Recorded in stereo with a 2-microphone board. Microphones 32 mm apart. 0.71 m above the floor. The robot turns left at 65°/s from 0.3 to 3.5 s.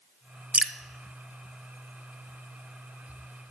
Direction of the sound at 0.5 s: 45° right (ahead or behind).